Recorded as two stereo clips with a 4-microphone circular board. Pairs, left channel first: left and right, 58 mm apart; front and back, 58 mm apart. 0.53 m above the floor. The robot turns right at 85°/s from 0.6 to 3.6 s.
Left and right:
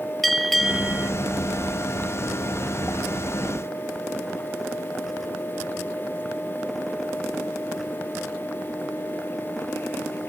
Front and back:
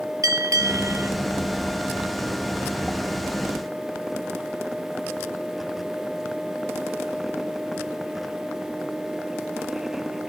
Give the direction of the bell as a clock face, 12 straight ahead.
6 o'clock.